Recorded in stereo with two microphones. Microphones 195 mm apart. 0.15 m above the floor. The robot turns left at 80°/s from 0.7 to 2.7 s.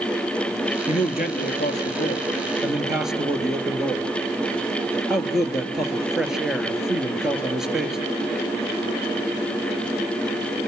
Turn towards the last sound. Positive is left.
turn(degrees=-5)